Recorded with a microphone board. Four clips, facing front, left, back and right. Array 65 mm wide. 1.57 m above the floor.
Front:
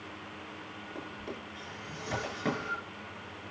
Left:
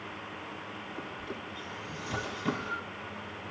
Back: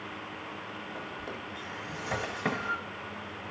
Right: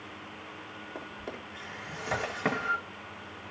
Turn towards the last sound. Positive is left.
turn(degrees=-100)